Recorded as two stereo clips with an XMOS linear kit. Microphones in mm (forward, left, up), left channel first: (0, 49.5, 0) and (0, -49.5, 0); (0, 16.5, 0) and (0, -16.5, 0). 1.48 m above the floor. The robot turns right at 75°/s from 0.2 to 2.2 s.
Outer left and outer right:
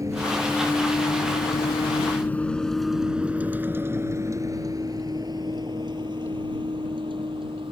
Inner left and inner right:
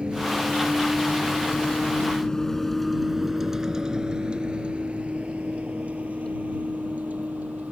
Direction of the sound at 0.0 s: 35° right (ahead or behind).